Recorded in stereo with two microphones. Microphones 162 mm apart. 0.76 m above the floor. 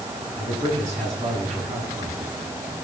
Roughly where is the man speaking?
Right.